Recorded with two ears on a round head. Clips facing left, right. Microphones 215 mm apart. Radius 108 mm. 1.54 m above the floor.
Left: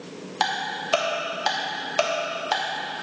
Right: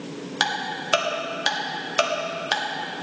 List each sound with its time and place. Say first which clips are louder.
0.4 s ticking: even; 20° right (ahead or behind), 1.0 m